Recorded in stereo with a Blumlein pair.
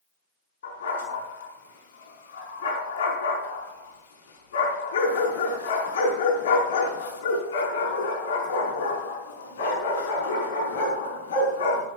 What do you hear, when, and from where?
0.6 s a dog barking: 60° left, 5 m